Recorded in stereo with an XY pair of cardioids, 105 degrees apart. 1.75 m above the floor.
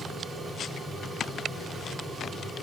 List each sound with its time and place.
0.0 s a fan: 30° right, 3 m